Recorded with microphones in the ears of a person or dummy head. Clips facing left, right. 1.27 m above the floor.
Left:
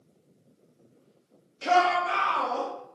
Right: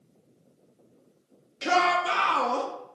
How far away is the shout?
About 0.7 m.